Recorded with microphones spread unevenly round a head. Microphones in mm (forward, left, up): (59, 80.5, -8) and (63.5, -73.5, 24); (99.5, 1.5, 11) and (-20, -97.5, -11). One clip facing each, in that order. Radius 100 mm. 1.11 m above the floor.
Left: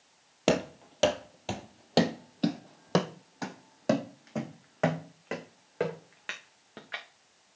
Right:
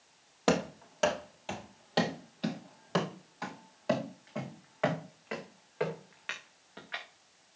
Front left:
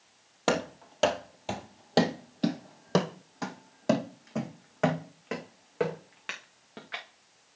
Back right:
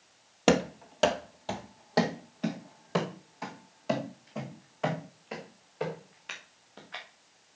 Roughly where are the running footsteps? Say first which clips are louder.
Left 2 dB, back right 4 dB; behind.